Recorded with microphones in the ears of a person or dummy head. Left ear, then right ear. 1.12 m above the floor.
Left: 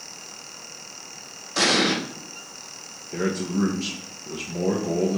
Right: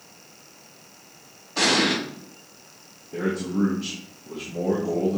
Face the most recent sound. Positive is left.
turn(degrees=50)  # may be behind; listen again after turning